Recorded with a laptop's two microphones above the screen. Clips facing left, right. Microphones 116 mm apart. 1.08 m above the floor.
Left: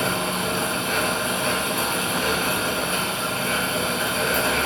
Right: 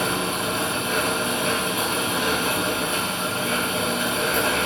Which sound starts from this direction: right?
A fan, at 0.0 s.